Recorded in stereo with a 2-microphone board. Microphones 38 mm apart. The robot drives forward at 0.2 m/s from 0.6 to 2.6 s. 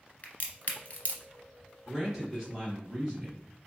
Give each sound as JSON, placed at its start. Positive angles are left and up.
{"t": 0.2, "sound": "a crack", "side_deg": 40, "distance_m": 1.0}
{"t": 1.9, "sound": "a man speaking", "side_deg": -10, "distance_m": 1.4}